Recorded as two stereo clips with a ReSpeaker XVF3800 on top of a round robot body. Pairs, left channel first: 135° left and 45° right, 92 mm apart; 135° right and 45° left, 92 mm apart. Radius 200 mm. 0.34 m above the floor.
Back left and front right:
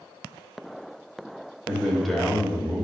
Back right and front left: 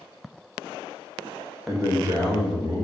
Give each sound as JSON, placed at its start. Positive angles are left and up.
{"t": 1.7, "sound": "a man speaking", "azimuth_deg": 45, "distance_m": 1.1}